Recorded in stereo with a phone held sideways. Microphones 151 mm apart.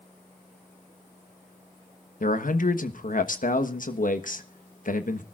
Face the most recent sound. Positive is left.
turn(degrees=60)  # may be behind; listen again after turning